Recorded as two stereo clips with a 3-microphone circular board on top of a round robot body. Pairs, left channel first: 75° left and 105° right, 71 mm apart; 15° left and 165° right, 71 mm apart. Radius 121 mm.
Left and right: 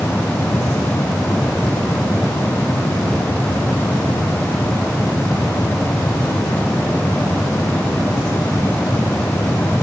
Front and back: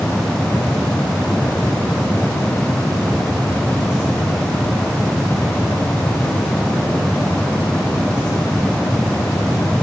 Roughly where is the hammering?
I don't hear hammering.